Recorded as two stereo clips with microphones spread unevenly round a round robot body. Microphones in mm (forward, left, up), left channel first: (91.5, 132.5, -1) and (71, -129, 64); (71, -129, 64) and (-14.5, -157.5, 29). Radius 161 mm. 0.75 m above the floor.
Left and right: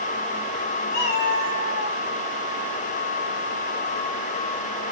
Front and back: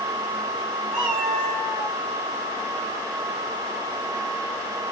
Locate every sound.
0.9 s a cat meowing: 120° left, 2.5 m; by 1.9 s 130° left, 2.5 m